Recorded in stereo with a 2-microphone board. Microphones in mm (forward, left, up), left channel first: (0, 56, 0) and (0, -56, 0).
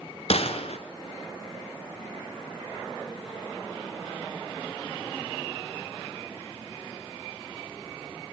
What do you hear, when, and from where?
0.3 s a gunshot: 65° left (ahead or behind), 1.9 m